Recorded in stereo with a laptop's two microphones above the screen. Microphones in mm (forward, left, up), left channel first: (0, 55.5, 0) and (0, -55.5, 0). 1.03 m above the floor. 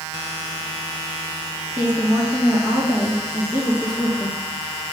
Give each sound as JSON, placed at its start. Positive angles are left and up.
{"t": 1.8, "sound": "a woman speaking", "side_deg": -20, "distance_m": 2.5}